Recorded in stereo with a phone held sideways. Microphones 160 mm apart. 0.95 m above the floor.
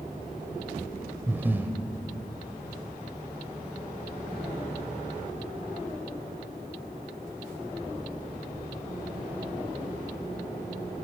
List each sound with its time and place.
1.3 s breathing: 10° right (ahead or behind), 0.8 m